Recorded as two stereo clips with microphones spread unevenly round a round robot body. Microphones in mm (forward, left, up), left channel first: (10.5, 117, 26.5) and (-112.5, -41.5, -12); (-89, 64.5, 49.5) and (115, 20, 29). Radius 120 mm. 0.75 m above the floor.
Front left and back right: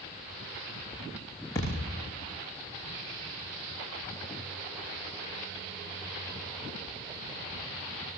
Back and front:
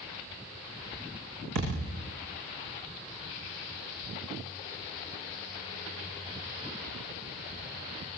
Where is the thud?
25° right, 10 m.